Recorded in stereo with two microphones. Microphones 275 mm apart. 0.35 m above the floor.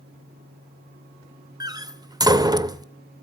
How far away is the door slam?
About 0.6 m.